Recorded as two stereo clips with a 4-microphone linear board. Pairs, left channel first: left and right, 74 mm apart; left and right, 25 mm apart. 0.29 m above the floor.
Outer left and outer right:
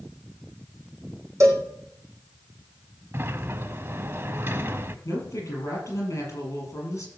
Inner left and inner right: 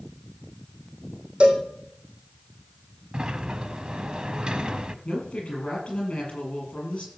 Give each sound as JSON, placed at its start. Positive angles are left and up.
{"t": 1.4, "sound": "a cowbell", "side_deg": -45, "distance_m": 3.0}
{"t": 3.1, "sound": "a sliding door", "side_deg": -35, "distance_m": 0.8}
{"t": 5.0, "sound": "a woman speaking", "side_deg": 45, "distance_m": 7.5}